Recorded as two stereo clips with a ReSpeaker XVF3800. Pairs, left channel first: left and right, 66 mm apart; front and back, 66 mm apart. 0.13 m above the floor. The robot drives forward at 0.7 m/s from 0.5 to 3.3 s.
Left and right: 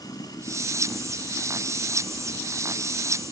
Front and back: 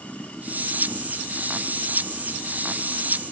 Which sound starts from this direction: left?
Running water, at 0.0 s.